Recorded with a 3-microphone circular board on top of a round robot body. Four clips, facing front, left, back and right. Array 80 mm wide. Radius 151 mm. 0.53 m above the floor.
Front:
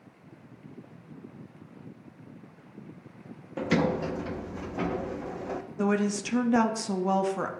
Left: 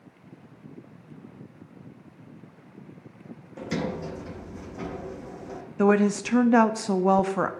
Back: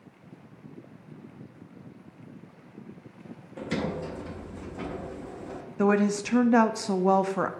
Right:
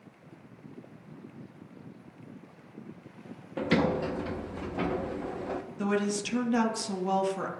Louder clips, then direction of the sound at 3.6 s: Right 4 dB, front 5 dB; 45° right.